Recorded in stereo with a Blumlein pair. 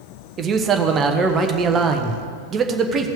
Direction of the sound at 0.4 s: 25° right.